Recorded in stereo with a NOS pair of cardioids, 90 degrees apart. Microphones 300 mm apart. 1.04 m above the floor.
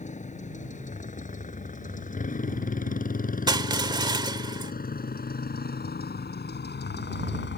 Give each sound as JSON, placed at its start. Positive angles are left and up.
{"t": 0.0, "sound": "a motorcycle", "azimuth_deg": 25}
{"t": 3.5, "sound": "crushing", "azimuth_deg": -15}